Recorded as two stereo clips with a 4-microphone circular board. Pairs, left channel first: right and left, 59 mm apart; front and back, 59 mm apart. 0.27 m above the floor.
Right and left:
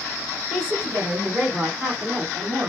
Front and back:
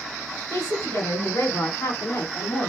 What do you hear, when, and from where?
0.5 s a woman speaking: 20° left, 2.5 m; by 2.7 s 45° left, 1.5 m